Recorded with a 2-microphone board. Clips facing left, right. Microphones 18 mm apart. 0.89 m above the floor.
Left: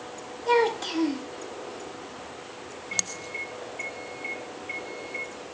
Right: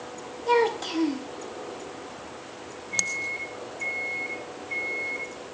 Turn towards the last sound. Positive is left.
turn(degrees=65)  # may be behind; listen again after turning